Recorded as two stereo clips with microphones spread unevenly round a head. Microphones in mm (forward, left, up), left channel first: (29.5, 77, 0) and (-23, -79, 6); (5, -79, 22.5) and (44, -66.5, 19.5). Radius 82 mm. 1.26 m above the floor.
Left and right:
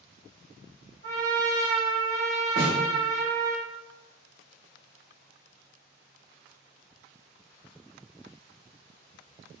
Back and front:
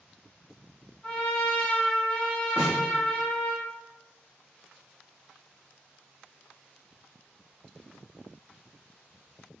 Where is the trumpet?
110° right, 1.1 m.